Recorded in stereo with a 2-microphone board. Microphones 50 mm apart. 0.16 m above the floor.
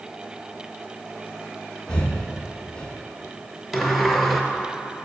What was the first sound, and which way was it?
Breathing, 15° left (ahead or behind).